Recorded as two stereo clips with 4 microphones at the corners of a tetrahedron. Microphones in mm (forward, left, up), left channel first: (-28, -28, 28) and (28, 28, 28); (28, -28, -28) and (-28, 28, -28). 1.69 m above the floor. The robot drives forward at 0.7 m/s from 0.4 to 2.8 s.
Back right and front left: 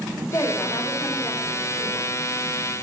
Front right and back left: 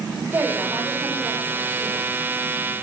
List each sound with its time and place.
0.3 s a woman speaking: 150° right, 5 m; by 2.1 s 155° right, 6 m